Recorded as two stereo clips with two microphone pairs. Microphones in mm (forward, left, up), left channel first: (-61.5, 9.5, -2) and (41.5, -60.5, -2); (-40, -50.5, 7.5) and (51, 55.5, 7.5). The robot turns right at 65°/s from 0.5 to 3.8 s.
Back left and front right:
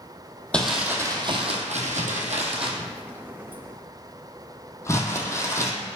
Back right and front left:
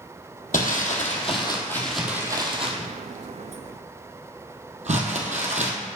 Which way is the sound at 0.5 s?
130° right.